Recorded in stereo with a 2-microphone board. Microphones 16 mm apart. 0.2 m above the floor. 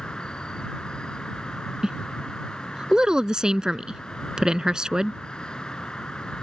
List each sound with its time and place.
0.0 s an insect: 70° left (ahead or behind)
1.8 s a woman speaking: 50° right (ahead or behind)